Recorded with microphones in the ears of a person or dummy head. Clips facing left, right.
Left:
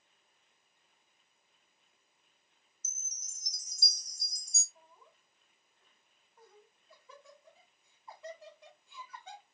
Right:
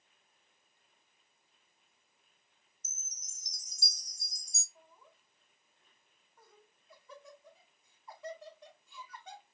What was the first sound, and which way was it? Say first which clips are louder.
A chime: right 1 dB; 35° left (ahead or behind).